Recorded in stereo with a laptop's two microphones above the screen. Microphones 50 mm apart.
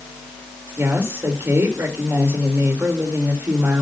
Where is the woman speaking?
60° right (ahead or behind), 4.5 m.